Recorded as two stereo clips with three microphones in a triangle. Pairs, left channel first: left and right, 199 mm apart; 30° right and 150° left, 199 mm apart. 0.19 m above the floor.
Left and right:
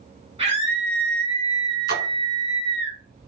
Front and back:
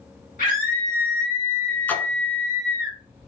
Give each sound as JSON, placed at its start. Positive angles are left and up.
{"t": 0.4, "sound": "a scream", "azimuth_deg": -40, "distance_m": 1.6}
{"t": 1.9, "sound": "a splash", "azimuth_deg": -110, "distance_m": 1.2}